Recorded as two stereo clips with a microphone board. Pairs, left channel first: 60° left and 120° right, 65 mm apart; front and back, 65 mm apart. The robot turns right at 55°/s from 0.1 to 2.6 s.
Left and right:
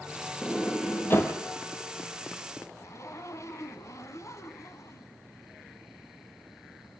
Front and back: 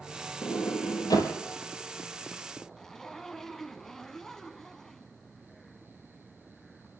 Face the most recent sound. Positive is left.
turn(degrees=80)